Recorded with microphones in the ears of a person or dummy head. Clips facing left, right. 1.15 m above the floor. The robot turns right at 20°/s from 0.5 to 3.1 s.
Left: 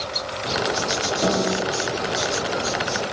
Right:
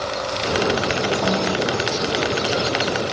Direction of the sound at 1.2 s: 15° left (ahead or behind).